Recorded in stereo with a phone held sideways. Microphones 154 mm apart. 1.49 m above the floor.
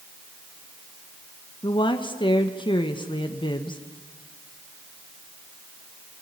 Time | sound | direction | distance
1.6 | a woman speaking | 30° left (ahead or behind) | 1.5 m